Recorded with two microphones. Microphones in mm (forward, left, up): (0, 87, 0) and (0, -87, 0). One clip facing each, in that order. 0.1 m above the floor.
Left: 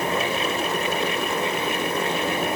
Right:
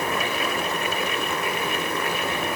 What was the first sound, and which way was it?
Only background noise.